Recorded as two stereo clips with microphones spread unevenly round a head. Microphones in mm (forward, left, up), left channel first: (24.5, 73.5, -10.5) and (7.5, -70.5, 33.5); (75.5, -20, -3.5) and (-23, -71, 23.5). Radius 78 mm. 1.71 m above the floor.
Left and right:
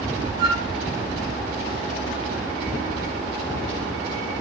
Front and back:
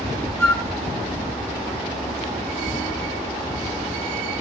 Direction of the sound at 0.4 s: 40° right.